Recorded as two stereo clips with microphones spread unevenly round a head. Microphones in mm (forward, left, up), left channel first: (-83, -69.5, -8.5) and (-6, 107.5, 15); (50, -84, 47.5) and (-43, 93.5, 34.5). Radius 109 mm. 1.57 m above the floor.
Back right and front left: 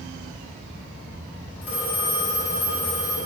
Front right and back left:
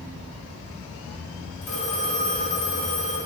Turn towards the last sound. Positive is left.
turn(degrees=-85)